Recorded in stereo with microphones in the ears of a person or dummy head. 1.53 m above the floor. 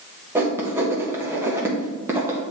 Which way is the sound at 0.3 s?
10° right (ahead or behind).